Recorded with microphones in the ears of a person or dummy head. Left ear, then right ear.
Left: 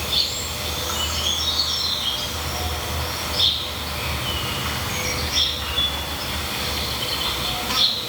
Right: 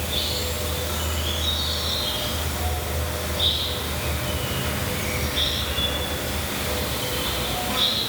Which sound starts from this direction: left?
An insect, at 0.0 s.